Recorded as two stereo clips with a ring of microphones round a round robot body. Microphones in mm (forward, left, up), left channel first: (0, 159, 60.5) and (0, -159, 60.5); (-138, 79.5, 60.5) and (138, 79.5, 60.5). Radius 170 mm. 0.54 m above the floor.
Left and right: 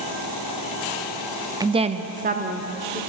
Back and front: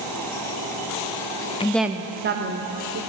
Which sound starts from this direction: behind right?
A woman speaking, at 1.6 s.